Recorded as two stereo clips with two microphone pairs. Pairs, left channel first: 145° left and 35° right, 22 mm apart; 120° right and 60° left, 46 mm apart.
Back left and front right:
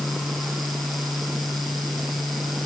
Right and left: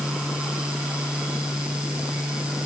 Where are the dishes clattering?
I don't hear dishes clattering.